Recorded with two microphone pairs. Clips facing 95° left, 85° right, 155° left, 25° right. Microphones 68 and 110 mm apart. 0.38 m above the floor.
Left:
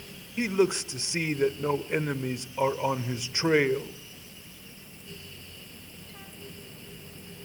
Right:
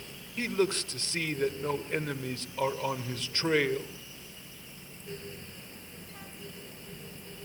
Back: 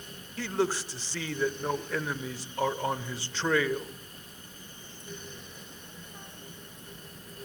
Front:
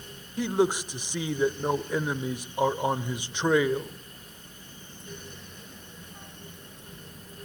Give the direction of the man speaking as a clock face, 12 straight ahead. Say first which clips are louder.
Left 4 dB, front 4 dB; 11 o'clock.